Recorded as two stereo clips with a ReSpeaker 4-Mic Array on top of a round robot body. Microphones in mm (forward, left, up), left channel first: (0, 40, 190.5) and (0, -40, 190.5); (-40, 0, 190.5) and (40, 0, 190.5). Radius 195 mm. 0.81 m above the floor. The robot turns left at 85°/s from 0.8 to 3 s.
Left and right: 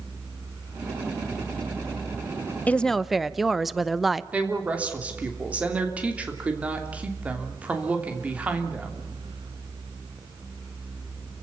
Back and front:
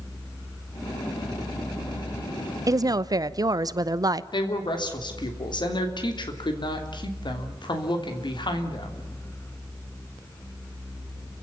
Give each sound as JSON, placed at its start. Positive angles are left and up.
{"t": 2.7, "sound": "a woman speaking", "azimuth_deg": 25, "distance_m": 0.9}
{"t": 4.3, "sound": "a woman speaking", "azimuth_deg": -165, "distance_m": 3.0}